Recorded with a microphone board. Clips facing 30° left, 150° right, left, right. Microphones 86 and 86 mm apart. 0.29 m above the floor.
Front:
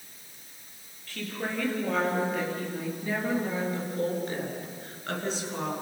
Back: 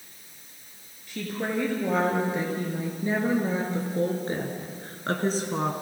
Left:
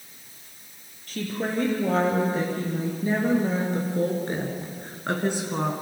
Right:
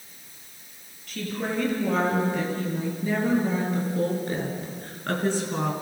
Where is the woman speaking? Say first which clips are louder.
Back 4 dB, left 1 dB; 140° left, 7 m; by 5.7 s 170° left, 3.5 m.